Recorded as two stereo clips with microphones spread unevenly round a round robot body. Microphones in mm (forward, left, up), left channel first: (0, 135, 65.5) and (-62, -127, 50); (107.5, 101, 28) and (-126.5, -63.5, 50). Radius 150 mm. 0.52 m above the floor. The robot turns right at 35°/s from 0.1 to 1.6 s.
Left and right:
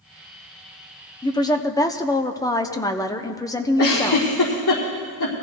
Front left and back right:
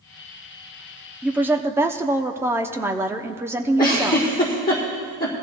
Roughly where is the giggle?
Left.